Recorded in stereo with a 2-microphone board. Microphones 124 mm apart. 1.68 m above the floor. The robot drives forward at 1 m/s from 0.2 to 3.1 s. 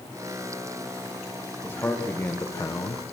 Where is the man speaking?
15° left (ahead or behind), 2.5 m; by 3.0 s 40° left (ahead or behind), 1.1 m.